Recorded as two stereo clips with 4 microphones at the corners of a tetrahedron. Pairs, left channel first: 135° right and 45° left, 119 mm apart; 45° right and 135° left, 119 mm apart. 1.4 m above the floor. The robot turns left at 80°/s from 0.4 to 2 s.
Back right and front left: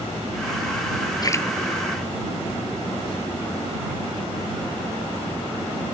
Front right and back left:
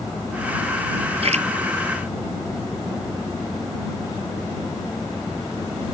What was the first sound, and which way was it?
A splash, 170° left.